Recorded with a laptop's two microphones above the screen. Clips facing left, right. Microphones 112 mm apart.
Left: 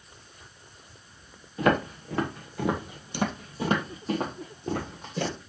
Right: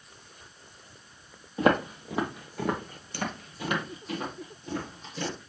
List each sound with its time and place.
1.6 s footsteps: 25° right (ahead or behind), 1.2 m; by 5.4 s 55° left (ahead or behind), 1.9 m